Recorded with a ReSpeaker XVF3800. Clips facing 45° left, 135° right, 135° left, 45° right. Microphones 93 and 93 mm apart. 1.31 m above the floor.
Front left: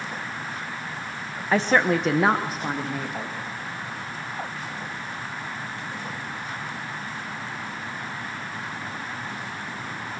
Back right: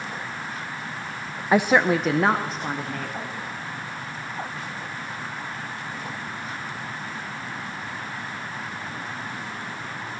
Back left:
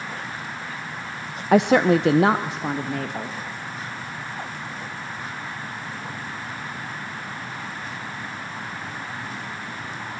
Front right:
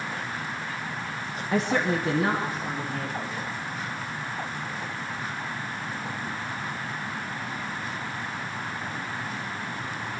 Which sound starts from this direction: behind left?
A woman speaking, at 1.5 s.